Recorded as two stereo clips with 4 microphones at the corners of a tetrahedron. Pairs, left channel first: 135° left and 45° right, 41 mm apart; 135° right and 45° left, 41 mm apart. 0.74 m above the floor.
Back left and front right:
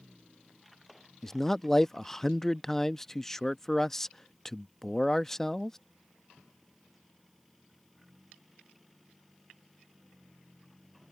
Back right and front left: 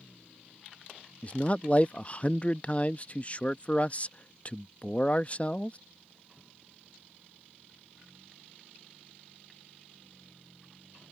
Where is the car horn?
I don't hear a car horn.